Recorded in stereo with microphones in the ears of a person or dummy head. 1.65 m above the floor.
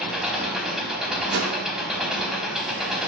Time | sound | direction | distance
0.0 | an engine running | 5° right (ahead or behind) | 4.5 m
1.3 | a whoosh | 80° right | 2 m